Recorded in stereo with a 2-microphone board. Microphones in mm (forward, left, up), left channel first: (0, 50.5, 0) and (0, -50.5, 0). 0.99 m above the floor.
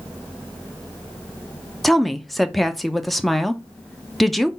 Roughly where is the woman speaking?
Centre.